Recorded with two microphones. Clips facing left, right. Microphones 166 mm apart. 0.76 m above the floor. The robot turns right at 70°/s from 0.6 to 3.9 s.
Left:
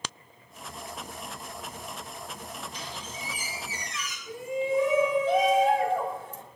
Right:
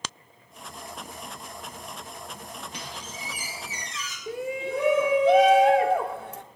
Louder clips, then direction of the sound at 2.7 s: Even; 110° right.